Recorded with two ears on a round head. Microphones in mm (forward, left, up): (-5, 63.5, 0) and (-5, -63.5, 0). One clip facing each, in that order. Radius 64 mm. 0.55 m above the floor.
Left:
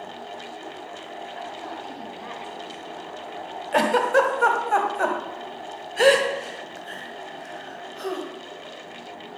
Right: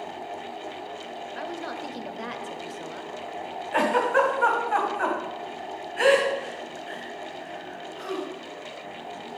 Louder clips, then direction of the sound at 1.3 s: Right 2 dB; 65° right (ahead or behind).